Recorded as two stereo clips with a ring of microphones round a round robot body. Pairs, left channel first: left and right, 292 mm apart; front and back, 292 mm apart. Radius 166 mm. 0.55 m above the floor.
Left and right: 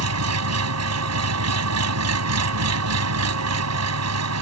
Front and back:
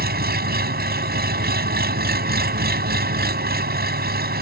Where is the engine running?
125° right.